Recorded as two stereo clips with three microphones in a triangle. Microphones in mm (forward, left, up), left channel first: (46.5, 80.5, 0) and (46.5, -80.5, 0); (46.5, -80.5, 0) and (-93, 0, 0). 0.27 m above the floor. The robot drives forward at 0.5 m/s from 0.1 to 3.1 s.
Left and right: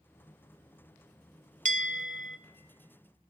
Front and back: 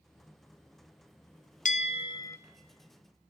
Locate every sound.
1.6 s a bell: 60° right, 0.5 m; by 2.4 s 105° right, 0.5 m